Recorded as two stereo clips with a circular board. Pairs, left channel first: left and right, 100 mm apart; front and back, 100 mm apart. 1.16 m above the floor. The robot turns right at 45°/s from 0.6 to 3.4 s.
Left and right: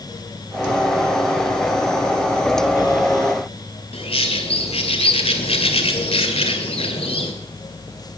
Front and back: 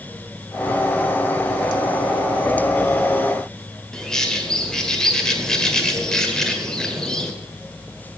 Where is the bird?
85° left, 2 m.